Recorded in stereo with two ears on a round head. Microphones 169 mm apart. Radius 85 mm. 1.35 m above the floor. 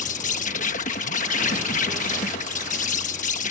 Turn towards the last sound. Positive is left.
turn(degrees=40)  # may be behind; listen again after turning